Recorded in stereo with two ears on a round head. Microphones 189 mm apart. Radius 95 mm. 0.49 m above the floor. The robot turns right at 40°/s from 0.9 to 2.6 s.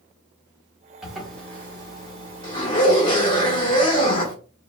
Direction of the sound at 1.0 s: 5° right.